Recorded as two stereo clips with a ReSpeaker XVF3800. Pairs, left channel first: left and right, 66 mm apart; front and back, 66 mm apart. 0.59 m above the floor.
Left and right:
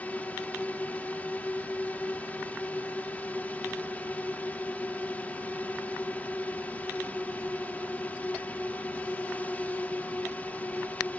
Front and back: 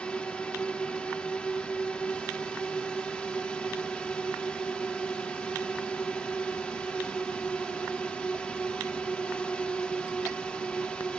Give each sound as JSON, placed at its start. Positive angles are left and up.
{"t": 0.0, "sound": "a drone", "azimuth_deg": 55}